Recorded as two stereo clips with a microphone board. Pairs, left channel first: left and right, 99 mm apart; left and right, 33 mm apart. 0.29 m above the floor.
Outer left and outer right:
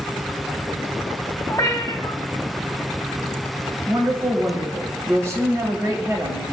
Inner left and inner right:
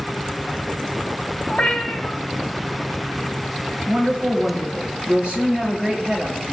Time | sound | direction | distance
1.5 | a cat meowing | 30° left (ahead or behind) | 0.6 m
3.9 | a woman speaking | 30° right (ahead or behind) | 1.1 m